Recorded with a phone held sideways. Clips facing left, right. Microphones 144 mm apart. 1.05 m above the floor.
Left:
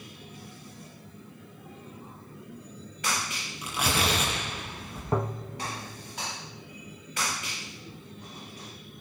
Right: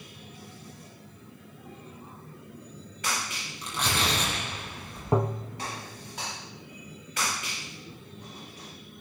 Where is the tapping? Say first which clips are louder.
Right 3 dB; 15° right (ahead or behind), 0.5 m.